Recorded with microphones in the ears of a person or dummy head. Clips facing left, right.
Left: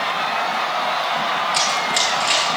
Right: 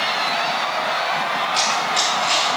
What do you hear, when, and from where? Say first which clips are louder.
1.5 s running footsteps: even; 25° left (ahead or behind), 1.2 m